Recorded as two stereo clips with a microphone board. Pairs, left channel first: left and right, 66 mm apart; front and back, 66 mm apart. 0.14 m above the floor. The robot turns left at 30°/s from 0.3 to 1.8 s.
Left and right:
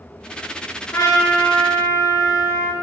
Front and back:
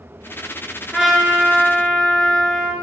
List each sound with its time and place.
0.9 s a trumpet: 95° left, 0.6 m; by 2.7 s 70° left, 0.6 m